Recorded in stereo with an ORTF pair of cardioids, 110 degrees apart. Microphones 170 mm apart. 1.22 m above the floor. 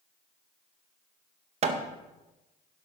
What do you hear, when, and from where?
1.6 s hammering: 40° right, 1.2 m